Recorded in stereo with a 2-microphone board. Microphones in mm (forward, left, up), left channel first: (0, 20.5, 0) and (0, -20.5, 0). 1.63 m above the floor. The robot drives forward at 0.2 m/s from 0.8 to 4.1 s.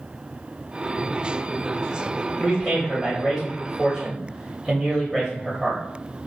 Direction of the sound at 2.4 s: Centre (ahead or behind).